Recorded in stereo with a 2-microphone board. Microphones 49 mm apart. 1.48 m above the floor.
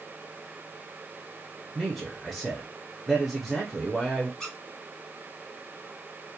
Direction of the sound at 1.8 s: 5° right (ahead or behind).